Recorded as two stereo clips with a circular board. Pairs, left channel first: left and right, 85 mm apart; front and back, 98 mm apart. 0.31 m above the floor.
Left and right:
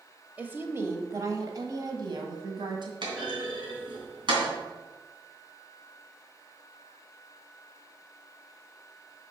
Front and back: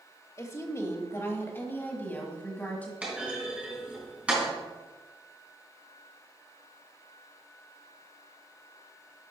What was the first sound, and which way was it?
A woman speaking, 30° right.